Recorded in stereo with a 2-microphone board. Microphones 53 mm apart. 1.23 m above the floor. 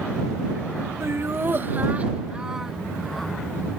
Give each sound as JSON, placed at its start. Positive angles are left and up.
{"t": 1.0, "sound": "laughter", "side_deg": -60}